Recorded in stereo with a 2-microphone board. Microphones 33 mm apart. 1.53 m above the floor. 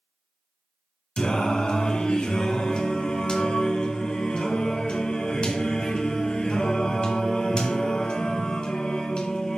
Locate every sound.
1.2 s singing: 25° left (ahead or behind), 1.5 m